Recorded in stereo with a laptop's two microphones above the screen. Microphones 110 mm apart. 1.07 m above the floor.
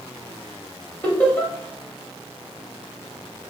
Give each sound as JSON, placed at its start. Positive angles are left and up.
{"t": 1.0, "sound": "laughter", "side_deg": 15, "distance_m": 2.5}